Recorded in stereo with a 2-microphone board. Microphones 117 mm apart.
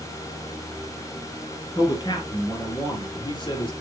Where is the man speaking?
40° left (ahead or behind), 3 m.